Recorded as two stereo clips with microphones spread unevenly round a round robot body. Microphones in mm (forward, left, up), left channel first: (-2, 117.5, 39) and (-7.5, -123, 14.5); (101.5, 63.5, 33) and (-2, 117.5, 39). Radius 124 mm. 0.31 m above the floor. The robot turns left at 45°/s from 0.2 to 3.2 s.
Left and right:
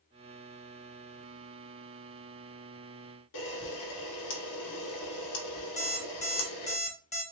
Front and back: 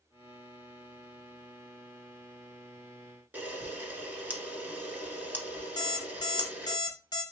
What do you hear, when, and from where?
3.3 s a camera shutter: 75° left, 1.2 m
5.8 s an alarm clock: 25° left, 1.5 m